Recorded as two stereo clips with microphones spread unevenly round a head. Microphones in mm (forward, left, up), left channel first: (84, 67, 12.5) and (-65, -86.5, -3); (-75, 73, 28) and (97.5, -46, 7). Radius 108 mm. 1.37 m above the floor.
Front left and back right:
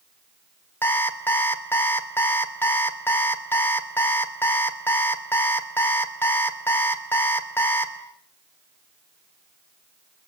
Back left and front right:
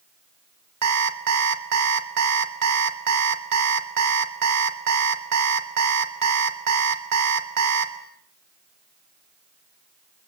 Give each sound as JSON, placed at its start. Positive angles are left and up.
{"t": 0.8, "sound": "an alarm clock", "azimuth_deg": -35, "distance_m": 2.0}